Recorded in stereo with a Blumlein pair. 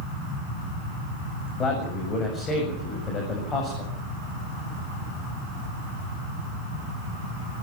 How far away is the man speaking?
About 8 m.